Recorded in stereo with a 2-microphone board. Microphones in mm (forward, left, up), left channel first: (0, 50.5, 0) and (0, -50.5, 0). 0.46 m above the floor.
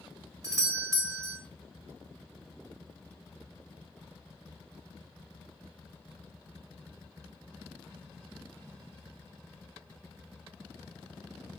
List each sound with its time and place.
0.4 s a doorbell: 30° right (ahead or behind), 1.7 m